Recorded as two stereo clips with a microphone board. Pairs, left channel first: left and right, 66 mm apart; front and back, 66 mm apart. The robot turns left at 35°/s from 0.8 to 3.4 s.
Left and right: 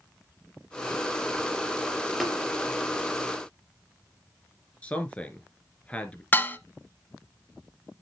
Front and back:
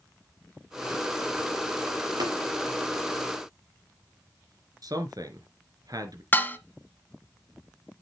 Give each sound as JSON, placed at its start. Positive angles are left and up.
{"t": 2.2, "sound": "tapping", "azimuth_deg": 180, "distance_m": 4.5}
{"t": 4.8, "sound": "a man speaking", "azimuth_deg": 160, "distance_m": 3.0}
{"t": 6.3, "sound": "dishes clattering", "azimuth_deg": 40, "distance_m": 1.1}